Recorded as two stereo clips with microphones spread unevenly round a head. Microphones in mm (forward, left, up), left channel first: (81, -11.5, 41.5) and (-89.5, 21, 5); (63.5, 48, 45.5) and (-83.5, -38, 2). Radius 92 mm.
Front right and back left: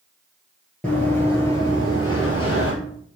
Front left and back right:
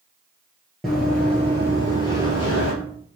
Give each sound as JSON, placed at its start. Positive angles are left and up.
{"t": 0.8, "sound": "running footsteps", "azimuth_deg": -15, "distance_m": 1.4}